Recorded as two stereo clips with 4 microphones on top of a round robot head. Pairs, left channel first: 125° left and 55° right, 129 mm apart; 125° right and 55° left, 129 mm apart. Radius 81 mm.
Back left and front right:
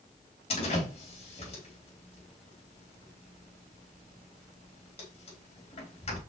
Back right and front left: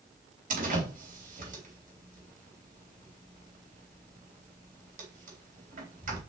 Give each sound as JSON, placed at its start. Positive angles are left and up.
{"t": 0.5, "sound": "a door slam", "azimuth_deg": 80, "distance_m": 4.0}